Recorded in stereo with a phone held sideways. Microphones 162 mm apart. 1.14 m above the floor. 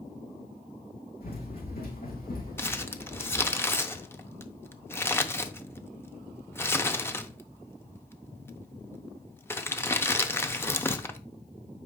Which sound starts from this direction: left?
Running footsteps, at 1.2 s.